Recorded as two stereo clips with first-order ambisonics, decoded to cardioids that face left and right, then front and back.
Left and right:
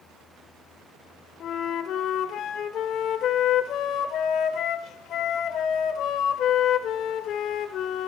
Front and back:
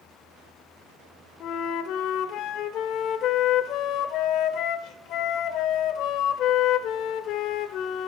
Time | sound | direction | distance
1.4 | a flute | 40° left | 1.9 m